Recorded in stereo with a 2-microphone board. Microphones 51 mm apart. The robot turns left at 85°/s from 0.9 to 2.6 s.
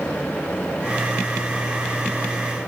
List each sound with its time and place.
Only background noise.